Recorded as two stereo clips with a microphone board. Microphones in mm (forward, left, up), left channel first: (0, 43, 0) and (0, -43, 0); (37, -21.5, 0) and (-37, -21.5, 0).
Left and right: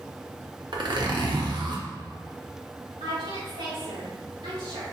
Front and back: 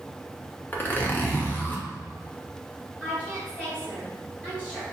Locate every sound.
0.7 s a zipper: 65° right, 0.9 m
3.0 s a woman speaking: 75° right, 1.9 m